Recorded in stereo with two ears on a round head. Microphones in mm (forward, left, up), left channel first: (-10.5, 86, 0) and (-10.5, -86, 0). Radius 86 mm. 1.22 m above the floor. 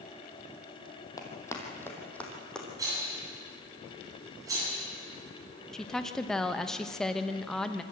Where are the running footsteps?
20° left (ahead or behind), 2.5 m; by 2.7 s 5° left (ahead or behind), 3.5 m.